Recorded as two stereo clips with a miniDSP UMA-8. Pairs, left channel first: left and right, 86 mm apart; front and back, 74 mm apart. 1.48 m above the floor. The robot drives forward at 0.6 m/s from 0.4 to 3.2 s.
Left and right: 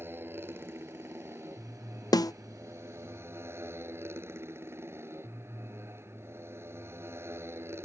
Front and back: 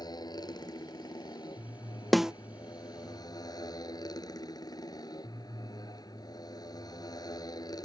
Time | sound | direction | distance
0.0 | a motorcycle | 25° right | ?
2.1 | a snare drum | 90° left | ?